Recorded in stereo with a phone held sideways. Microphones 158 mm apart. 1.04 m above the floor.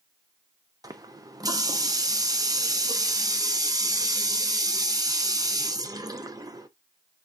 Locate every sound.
0.8 s a running tap: 25° right (ahead or behind), 0.7 m